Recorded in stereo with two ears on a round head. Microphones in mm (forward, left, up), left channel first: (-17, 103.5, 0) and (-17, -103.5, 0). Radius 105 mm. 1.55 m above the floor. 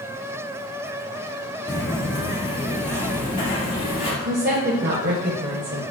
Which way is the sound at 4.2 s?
45° right (ahead or behind).